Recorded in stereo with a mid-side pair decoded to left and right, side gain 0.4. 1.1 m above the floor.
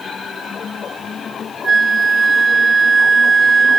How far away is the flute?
About 1.0 m.